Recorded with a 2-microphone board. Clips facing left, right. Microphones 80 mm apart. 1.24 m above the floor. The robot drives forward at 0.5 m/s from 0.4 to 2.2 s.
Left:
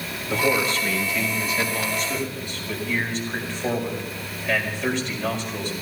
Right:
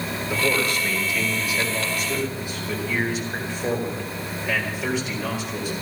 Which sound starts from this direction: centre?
A man speaking, at 0.3 s.